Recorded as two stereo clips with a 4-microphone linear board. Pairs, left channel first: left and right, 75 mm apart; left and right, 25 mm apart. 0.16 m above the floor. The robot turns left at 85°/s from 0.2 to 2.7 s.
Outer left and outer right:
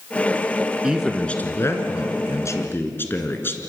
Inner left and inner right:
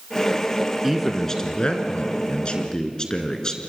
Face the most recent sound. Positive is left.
turn(degrees=40)